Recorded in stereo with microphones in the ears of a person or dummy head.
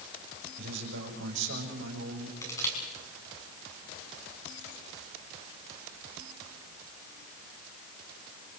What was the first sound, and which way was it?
A man speaking, 65° right (ahead or behind).